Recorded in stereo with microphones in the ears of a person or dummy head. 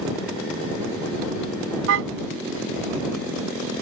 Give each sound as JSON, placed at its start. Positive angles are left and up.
{"t": 1.9, "sound": "a car horn", "side_deg": -80}